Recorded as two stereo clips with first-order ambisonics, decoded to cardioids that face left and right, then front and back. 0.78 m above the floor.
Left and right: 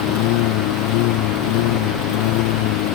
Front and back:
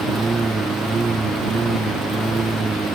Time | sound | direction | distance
0.0 | a lawn mower | 100° left | ?